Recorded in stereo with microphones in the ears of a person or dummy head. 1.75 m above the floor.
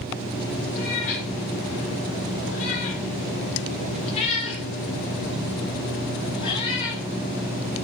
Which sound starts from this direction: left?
A cat meowing, at 0.8 s.